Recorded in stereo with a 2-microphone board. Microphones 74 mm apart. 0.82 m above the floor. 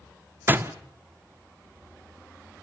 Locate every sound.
0.5 s a door slam: 30° right (ahead or behind), 1.2 m